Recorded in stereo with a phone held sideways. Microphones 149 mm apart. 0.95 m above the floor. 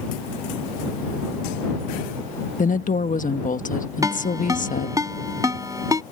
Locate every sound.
2.6 s a woman speaking: 60° left (ahead or behind)
4.0 s a ringtone: 25° right (ahead or behind)